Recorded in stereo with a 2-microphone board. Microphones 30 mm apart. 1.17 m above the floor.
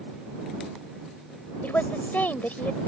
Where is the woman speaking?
80° left.